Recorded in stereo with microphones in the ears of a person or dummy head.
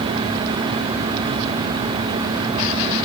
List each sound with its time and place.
Only background noise.